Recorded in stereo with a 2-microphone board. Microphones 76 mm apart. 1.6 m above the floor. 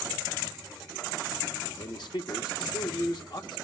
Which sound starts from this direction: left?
A man speaking, at 1.8 s.